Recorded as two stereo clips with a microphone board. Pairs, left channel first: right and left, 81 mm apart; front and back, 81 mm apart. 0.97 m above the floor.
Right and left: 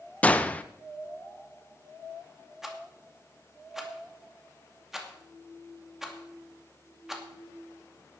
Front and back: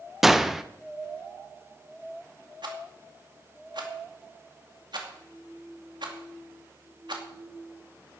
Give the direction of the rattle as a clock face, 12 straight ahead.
6 o'clock.